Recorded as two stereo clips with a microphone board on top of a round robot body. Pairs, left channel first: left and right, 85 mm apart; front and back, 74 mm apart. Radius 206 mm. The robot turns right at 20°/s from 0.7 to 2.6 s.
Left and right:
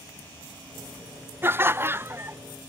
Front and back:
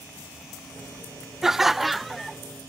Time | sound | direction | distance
1.4 | laughter | 100° right | ?